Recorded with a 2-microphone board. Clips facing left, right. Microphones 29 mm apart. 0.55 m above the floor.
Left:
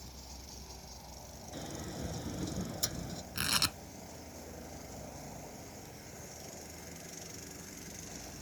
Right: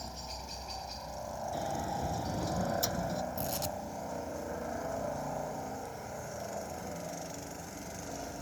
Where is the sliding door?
5° right (ahead or behind).